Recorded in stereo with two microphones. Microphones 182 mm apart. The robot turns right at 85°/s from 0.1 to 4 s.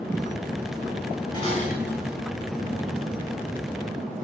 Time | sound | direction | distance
1.3 | dishes clattering | 25° left | 4 m